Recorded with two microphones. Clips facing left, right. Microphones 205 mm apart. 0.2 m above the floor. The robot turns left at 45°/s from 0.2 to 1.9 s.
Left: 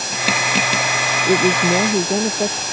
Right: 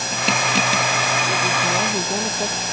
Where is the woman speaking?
55° left (ahead or behind); by 2.6 s 30° left (ahead or behind).